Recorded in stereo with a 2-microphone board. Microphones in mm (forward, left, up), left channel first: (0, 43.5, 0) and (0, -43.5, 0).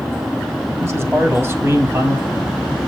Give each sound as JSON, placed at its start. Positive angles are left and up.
{"t": 0.8, "sound": "a man speaking", "side_deg": -30, "distance_m": 1.7}